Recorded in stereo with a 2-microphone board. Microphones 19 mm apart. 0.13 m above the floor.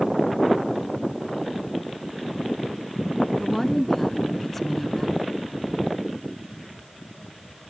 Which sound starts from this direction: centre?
A woman speaking, at 3.4 s.